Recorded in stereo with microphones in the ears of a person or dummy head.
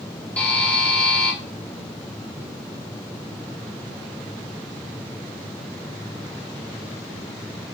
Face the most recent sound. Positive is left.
turn(degrees=5)  # may be behind; listen again after turning